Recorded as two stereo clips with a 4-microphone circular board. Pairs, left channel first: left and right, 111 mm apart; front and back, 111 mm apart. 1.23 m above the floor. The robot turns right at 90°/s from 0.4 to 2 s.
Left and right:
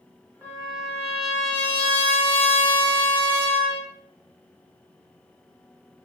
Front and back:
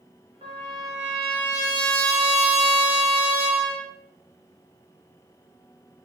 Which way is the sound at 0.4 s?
160° right.